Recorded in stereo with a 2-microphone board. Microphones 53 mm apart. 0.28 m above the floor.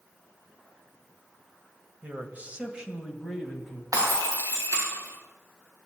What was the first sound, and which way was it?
A man speaking, 30° right (ahead or behind).